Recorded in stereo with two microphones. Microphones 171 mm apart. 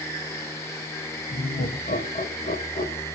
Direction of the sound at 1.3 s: 65° left (ahead or behind).